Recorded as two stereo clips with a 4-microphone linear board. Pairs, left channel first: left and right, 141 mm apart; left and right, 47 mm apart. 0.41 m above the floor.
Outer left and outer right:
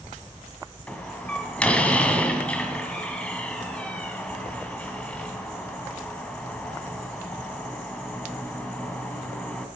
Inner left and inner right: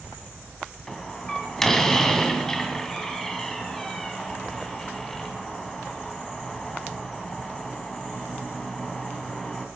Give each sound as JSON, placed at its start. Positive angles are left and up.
{"t": 0.9, "sound": "a door slam", "side_deg": 10, "distance_m": 2.0}